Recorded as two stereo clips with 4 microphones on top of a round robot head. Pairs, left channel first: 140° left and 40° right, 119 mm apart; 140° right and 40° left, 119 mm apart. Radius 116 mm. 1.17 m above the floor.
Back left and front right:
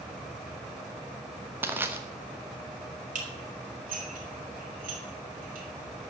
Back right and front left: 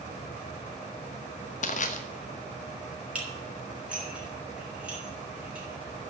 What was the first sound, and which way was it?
Crushing, 115° right.